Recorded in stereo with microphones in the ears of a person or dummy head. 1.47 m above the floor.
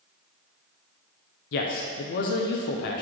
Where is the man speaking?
60° left (ahead or behind), 0.6 m.